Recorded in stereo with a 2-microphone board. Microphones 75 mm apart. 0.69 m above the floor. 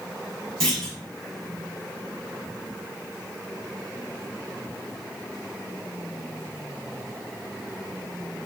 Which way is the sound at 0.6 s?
10° left (ahead or behind).